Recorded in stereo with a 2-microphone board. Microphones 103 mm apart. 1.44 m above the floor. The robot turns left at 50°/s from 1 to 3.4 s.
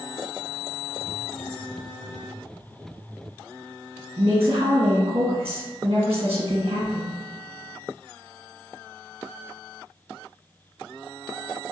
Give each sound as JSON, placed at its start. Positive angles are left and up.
{"t": 4.2, "sound": "a woman speaking", "side_deg": -70, "distance_m": 1.1}